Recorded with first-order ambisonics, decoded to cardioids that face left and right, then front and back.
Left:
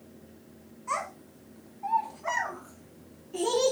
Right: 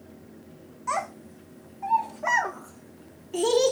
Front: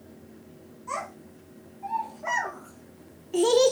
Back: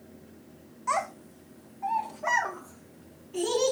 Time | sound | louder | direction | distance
0.9 | a child speaking | right 3 dB, back 5 dB | 135° right | 1.4 m